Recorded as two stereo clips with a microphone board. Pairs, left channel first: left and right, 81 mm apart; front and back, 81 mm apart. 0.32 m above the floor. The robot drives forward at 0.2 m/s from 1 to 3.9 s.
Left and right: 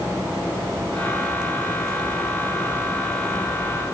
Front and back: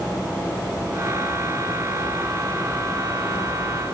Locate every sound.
Only background noise.